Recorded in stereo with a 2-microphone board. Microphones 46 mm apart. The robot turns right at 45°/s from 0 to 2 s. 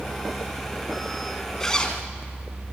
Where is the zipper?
10° left (ahead or behind), 2.0 m; by 2.0 s 25° left (ahead or behind), 2.0 m.